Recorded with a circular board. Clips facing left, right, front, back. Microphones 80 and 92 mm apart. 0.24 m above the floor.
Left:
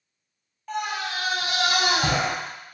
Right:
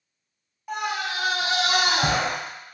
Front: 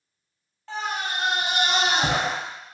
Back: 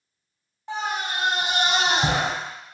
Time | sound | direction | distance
0.7 | a scream | 145° right | 1.2 m